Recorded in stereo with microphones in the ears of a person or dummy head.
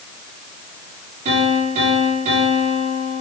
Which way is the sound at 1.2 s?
35° right (ahead or behind).